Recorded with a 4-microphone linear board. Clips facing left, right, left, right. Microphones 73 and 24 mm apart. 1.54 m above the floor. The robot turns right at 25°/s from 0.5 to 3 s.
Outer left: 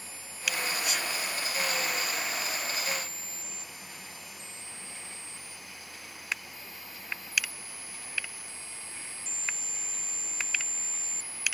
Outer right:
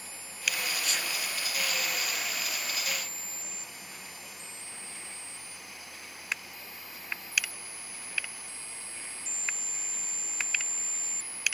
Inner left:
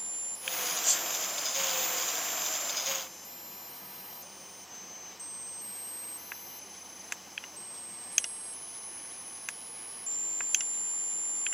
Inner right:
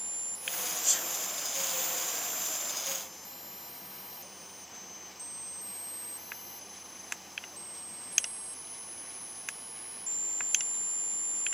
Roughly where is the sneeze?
Centre.